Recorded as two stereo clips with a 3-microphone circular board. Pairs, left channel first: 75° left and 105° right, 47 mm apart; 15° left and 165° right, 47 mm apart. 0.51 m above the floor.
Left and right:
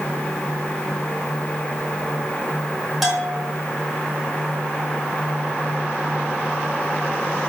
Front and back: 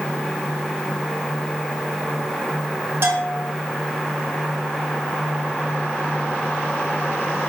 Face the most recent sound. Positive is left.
turn(degrees=165)